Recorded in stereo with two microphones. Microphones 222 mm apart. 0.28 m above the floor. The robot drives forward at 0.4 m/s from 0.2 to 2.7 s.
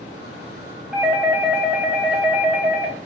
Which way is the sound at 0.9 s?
5° right (ahead or behind).